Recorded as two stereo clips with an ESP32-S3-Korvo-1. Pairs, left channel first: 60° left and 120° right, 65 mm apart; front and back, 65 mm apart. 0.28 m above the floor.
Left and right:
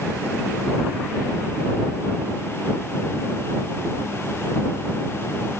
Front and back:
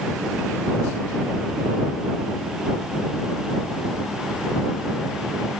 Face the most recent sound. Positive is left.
No sound to turn to.